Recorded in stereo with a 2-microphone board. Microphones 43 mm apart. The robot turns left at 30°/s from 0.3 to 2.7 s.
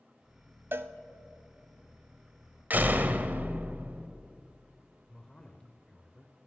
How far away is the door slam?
About 1.0 m.